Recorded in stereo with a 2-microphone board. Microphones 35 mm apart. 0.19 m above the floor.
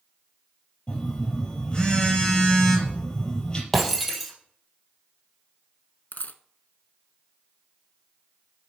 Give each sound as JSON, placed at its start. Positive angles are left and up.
{"t": 0.9, "sound": "a phone buzzing", "side_deg": 25, "distance_m": 4.0}
{"t": 3.7, "sound": "breaking glass", "side_deg": 0, "distance_m": 3.0}
{"t": 6.1, "sound": "a dropped coin", "side_deg": 60, "distance_m": 0.7}